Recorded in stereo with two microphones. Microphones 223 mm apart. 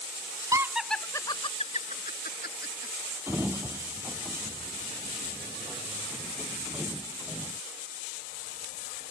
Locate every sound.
0.5 s laughter: 15° right (ahead or behind); by 2.9 s 50° left (ahead or behind)
3.3 s a sliding door: 10° right (ahead or behind)